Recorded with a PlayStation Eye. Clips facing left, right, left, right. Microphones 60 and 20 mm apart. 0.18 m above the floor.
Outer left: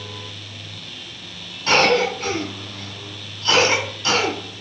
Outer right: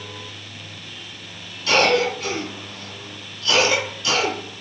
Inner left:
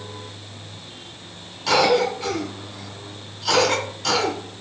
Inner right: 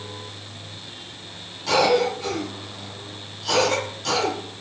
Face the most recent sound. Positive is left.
turn(degrees=35)  # may be behind; listen again after turning